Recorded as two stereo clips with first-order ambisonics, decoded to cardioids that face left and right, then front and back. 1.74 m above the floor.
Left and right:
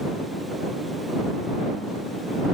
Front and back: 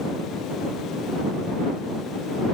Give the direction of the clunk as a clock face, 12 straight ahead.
No clunk in this recording.